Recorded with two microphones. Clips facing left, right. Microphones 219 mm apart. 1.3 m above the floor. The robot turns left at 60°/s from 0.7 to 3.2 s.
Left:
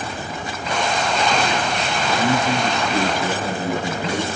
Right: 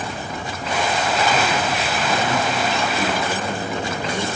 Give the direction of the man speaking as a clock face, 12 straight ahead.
8 o'clock.